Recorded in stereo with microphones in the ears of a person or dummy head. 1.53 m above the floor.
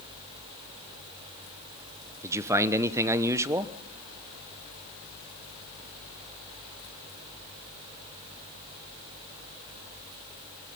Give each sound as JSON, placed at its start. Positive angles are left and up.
{"t": 2.2, "sound": "a man speaking", "side_deg": -15, "distance_m": 1.0}